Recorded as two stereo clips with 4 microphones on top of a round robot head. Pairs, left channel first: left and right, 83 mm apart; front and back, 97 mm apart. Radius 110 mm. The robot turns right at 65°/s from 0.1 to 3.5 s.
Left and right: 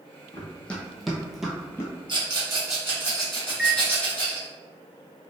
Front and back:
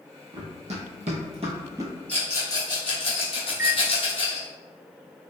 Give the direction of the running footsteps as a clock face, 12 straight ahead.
7 o'clock.